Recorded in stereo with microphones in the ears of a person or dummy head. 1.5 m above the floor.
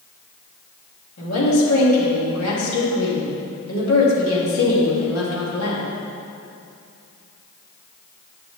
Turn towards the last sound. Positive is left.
turn(degrees=85)